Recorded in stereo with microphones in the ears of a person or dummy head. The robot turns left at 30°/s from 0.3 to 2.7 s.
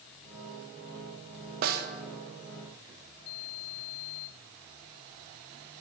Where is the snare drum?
55° right (ahead or behind), 0.5 m; by 1.9 s 60° right (ahead or behind), 0.5 m.